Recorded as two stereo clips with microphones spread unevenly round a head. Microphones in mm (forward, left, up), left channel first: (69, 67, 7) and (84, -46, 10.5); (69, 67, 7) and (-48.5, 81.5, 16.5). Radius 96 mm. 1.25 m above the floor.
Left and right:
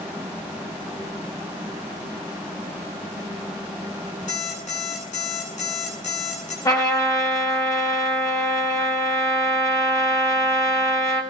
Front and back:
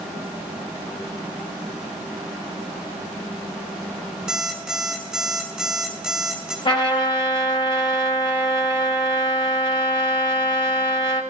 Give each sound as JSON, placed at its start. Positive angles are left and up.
{"t": 4.3, "sound": "an alarm clock", "azimuth_deg": 90, "distance_m": 9.5}
{"t": 6.7, "sound": "a trumpet", "azimuth_deg": 40, "distance_m": 4.5}